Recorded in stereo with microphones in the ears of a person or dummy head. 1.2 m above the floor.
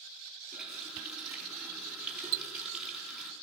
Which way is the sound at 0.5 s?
Centre (ahead or behind).